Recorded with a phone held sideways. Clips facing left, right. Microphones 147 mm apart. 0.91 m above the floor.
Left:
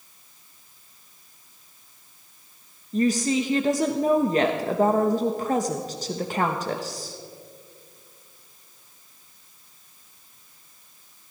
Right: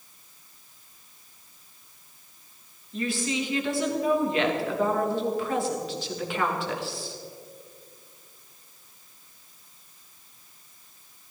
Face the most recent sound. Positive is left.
turn(degrees=40)  # may be behind; listen again after turning